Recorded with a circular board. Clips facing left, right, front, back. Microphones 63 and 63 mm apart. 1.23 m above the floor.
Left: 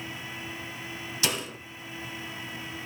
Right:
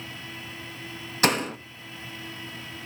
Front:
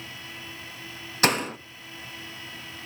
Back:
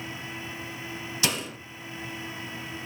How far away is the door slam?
About 0.8 m.